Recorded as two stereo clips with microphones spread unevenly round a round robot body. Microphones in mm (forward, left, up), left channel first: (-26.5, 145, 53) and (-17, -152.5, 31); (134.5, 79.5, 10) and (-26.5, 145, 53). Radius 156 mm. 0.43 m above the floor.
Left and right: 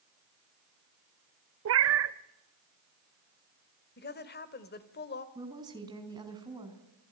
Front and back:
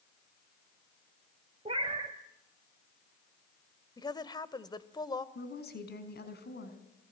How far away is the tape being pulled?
No tape being pulled in this recording.